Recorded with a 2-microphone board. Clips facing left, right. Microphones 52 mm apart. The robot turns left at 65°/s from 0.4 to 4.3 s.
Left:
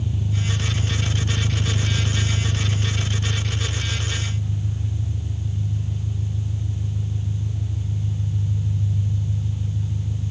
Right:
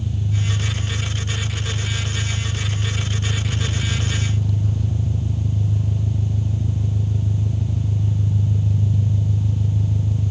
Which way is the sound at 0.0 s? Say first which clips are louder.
Right 1 dB; 170° left.